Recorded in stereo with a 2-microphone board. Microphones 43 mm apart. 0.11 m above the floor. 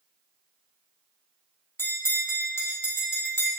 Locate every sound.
1.8 s a bell: 65° left (ahead or behind), 1.9 m